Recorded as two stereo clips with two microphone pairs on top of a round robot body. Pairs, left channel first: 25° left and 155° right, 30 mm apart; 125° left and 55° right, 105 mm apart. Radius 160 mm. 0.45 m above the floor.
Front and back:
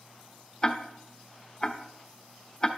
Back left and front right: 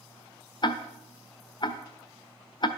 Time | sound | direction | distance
0.6 | ticking | 95° left | 1.0 m